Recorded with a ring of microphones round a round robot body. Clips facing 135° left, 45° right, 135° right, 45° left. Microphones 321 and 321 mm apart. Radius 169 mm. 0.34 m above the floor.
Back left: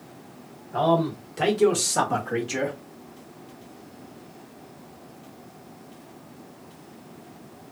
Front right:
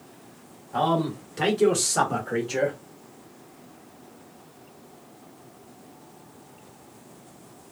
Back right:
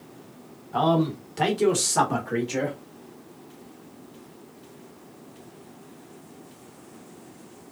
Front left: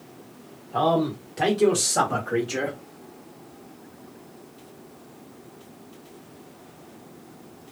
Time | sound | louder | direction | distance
0.7 | a man speaking | back left 2 dB, even | 110° right | 1.7 m